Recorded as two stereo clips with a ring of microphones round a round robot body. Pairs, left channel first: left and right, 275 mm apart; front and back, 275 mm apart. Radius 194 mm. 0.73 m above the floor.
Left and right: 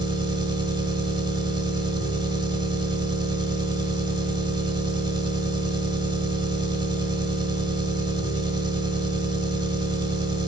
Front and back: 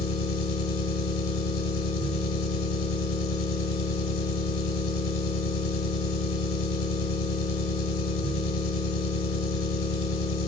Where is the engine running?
15° right, 1.4 m.